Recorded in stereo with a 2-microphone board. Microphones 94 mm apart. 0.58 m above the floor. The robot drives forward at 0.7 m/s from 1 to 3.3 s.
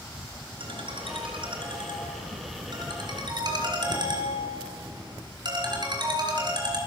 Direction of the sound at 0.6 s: 70° right (ahead or behind).